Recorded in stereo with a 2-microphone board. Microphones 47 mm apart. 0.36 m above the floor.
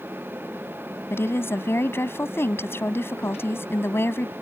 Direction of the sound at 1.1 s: 60° left (ahead or behind).